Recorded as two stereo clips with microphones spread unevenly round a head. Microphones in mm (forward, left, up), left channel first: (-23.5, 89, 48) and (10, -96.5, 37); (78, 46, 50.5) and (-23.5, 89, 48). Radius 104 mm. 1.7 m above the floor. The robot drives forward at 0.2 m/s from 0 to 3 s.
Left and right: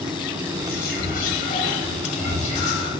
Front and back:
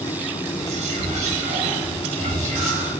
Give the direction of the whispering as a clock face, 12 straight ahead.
7 o'clock.